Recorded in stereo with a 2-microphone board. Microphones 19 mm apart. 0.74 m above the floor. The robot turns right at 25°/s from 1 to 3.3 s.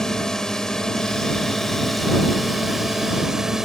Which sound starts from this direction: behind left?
A drone, at 0.0 s.